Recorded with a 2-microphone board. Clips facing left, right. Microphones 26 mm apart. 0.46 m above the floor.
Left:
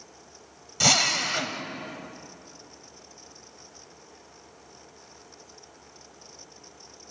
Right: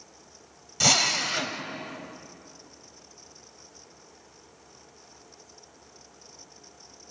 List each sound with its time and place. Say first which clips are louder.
0.8 s a drill: left 1 dB; centre (ahead or behind), 1.7 m